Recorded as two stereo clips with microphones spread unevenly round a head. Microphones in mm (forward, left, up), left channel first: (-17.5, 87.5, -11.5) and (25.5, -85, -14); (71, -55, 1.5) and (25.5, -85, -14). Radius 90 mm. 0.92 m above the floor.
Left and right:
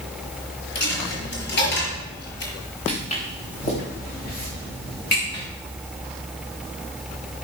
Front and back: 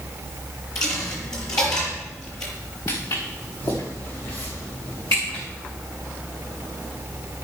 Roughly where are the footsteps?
Ahead left.